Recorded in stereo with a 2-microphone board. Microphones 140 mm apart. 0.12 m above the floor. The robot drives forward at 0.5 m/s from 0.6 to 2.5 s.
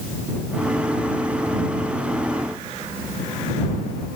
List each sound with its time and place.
Only background noise.